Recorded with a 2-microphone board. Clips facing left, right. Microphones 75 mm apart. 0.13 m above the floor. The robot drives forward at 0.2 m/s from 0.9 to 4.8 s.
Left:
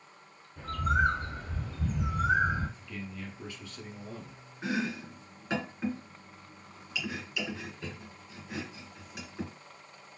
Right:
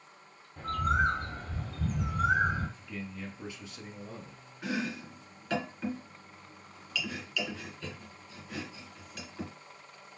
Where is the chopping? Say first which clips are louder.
Left 2 dB; 20° left (ahead or behind), 1.4 m.